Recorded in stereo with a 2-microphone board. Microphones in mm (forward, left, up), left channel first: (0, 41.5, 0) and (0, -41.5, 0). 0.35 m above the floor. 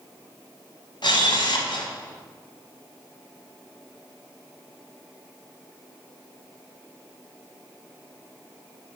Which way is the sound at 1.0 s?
70° left (ahead or behind).